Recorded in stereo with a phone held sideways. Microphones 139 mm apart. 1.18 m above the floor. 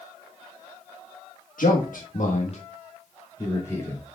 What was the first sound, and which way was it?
A man speaking, 80° left.